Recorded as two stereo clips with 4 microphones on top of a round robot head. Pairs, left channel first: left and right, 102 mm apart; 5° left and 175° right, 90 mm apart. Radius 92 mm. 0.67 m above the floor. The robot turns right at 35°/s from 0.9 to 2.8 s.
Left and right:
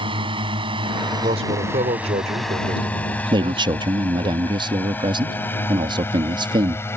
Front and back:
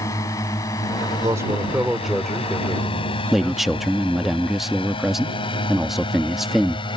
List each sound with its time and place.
0.0 s a drone: 60° right; by 7.0 s 25° left
1.2 s a man speaking: 120° right; by 4.3 s 65° right
3.3 s a man speaking: 90° right